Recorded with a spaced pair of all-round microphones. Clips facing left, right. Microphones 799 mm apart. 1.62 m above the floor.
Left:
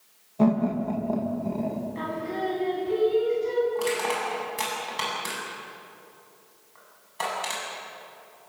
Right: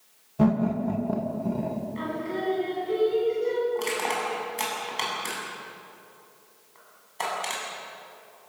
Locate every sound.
0.4 s laughter: 50° right (ahead or behind), 2.0 m
1.9 s singing: 80° left, 7 m
3.8 s crushing: 45° left (ahead or behind), 8 m